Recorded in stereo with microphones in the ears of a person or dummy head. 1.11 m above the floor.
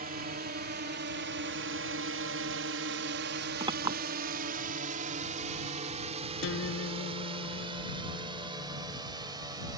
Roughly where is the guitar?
Left.